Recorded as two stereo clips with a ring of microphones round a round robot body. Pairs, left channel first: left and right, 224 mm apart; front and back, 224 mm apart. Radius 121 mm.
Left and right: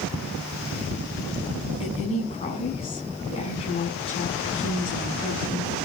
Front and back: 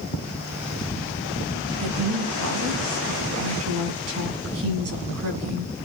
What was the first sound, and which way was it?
A woman speaking, 160° left.